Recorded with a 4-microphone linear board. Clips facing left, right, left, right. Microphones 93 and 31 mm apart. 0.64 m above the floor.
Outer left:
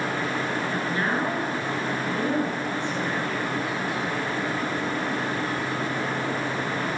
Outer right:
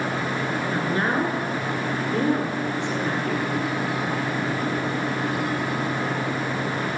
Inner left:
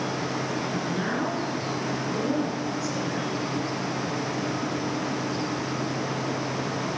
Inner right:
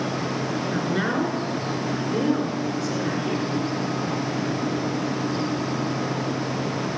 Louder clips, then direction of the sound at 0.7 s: Outer right 2 dB, inner right 4 dB; 65° right (ahead or behind).